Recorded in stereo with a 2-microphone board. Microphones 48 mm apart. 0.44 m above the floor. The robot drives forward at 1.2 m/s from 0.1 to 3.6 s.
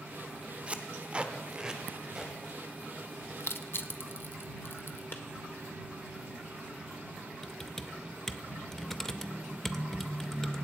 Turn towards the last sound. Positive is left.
turn(degrees=10)  # may be behind; listen again after turning